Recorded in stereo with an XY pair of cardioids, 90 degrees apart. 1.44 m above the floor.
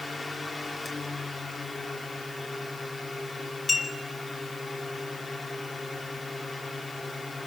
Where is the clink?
45° left, 5 m.